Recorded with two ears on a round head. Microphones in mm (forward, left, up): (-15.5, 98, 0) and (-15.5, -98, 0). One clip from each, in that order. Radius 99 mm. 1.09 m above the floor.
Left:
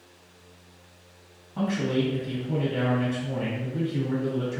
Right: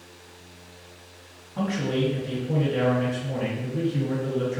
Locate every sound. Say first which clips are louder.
1.6 s a man speaking: even; 10° left (ahead or behind), 1.6 m